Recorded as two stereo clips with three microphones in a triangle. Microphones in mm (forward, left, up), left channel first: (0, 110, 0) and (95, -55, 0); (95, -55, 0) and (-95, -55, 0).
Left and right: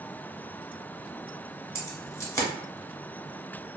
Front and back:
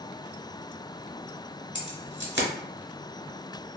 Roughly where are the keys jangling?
Behind.